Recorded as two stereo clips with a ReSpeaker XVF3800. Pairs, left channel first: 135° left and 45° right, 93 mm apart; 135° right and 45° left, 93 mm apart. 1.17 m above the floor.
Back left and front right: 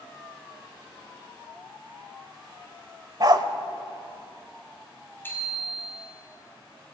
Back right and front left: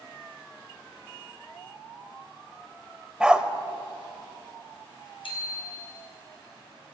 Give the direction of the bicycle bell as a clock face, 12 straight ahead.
5 o'clock.